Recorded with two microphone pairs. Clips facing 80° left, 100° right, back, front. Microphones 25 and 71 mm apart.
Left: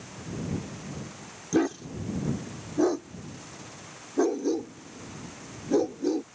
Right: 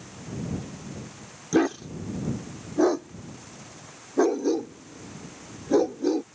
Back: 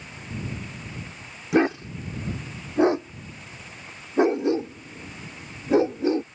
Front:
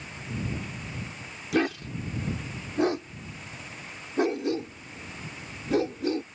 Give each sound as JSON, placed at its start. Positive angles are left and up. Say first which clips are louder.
{"t": 1.5, "sound": "a dog barking", "louder": "right 3 dB, back 5 dB", "azimuth_deg": -160}